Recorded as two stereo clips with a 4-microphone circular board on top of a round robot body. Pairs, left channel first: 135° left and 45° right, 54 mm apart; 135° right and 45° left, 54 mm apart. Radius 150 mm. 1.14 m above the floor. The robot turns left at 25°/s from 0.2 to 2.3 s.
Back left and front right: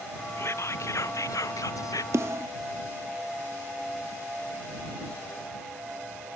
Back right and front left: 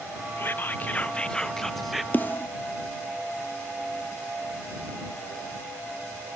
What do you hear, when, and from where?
0.4 s whispering: 175° left; by 2.0 s 135° left
2.1 s a snare drum: 80° right